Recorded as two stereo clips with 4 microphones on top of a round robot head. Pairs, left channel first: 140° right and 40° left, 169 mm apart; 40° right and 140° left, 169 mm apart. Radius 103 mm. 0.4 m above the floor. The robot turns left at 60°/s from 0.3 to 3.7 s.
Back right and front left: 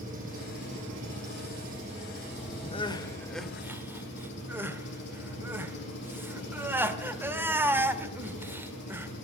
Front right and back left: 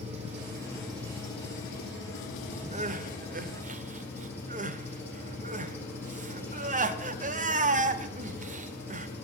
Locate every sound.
0.0 s an engine running: 85° left, 6.5 m; by 9.2 s 120° right, 6.5 m
2.7 s crying: 175° left, 1.1 m; by 9.1 s 115° left, 1.1 m